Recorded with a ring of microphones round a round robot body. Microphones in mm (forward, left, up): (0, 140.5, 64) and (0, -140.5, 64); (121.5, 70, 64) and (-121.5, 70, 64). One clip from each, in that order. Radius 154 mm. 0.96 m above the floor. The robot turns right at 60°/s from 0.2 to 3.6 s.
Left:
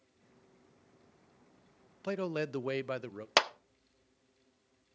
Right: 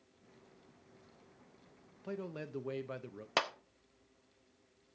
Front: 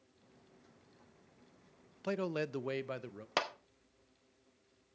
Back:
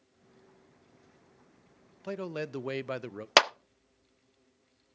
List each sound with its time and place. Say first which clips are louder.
2.0 s a man speaking: left 9 dB, even; 70° left, 0.5 m; by 3.3 s 140° left, 0.5 m
3.4 s a clap: left 6 dB, back 13 dB; 150° left, 0.5 m; by 3.5 s 160° left, 0.5 m